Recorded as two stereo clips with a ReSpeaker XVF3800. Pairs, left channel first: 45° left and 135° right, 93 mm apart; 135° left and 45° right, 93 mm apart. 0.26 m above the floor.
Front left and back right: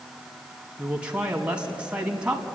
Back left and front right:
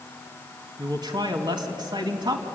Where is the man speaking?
60° right, 2.5 m.